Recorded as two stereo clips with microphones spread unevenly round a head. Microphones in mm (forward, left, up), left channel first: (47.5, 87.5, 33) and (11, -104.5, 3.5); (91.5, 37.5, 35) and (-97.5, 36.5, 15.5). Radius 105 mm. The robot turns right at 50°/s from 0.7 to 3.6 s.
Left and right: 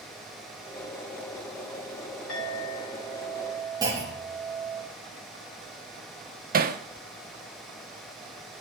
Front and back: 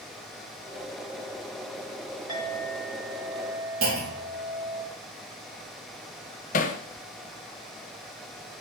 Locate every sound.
2.3 s a clink: 110° left, 4.5 m; by 4.8 s 175° left, 4.5 m
3.8 s a clunk: 175° right, 2.5 m
6.5 s hammering: 55° right, 0.8 m